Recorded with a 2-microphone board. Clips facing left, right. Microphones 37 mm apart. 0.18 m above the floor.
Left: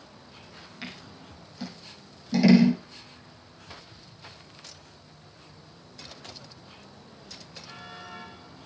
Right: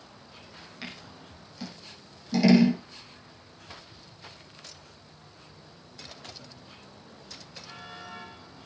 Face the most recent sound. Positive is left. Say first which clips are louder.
# left 1 dB
turn(degrees=5)  # may be behind; listen again after turning